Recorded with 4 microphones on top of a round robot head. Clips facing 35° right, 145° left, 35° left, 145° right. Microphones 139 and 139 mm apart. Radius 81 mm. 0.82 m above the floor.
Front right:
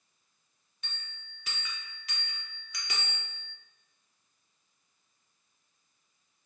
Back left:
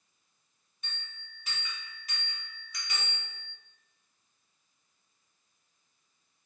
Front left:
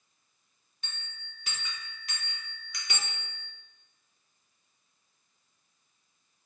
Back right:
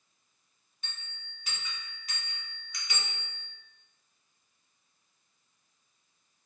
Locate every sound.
0.8 s a bell: 5° right, 0.9 m